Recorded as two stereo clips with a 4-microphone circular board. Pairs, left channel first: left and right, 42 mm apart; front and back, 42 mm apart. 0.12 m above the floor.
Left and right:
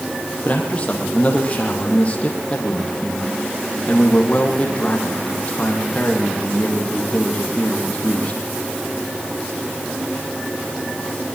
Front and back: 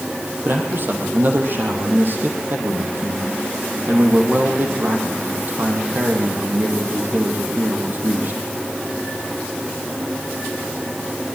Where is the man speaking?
145° left, 5 m.